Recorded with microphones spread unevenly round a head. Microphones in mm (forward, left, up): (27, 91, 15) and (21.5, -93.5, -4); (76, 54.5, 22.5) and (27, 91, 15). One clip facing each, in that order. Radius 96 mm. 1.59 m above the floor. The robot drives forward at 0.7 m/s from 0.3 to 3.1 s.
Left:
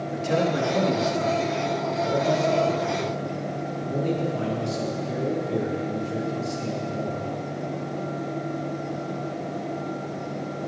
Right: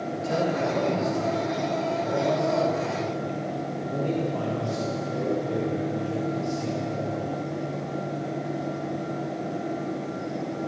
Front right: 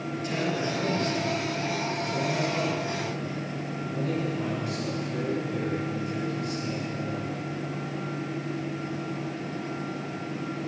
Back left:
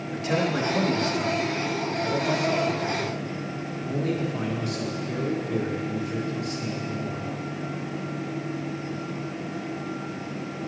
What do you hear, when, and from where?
0.1 s a man speaking: 145° left, 3 m; by 7.4 s 160° left, 5 m